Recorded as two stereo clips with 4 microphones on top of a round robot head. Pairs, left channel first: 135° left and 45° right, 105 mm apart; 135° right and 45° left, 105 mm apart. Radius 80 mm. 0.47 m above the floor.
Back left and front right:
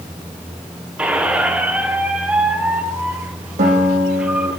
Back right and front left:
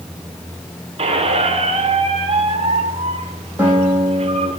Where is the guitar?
35° right, 5.5 m.